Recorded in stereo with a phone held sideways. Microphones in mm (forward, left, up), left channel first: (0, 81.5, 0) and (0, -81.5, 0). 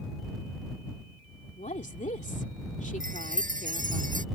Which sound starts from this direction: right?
A chime, at 3.0 s.